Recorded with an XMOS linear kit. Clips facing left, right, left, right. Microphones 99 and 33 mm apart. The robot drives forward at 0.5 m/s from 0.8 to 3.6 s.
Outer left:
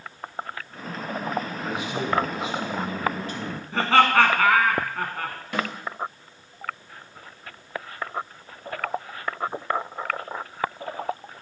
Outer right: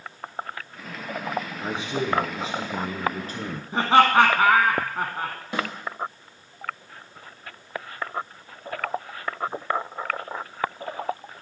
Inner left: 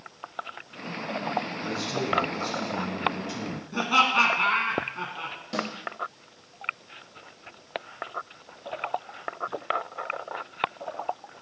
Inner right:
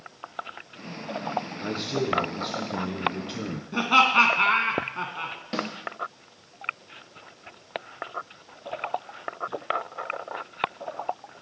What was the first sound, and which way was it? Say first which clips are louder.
A man speaking: outer right 1 dB, inner right 1 dB; 30° right (ahead or behind).